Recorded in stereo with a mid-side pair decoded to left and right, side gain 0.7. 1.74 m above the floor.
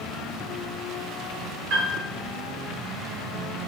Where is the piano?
65° right, 1.0 m.